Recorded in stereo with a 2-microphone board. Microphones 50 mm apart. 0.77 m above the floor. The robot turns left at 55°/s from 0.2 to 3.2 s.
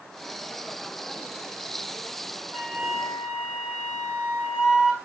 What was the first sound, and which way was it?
A flute, 25° left.